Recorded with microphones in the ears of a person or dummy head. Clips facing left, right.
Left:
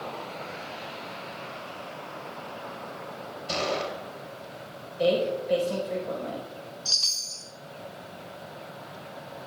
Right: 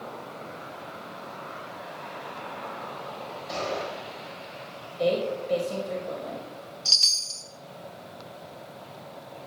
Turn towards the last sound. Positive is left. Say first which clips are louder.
# even
turn(degrees=-30)  # may be behind; listen again after turning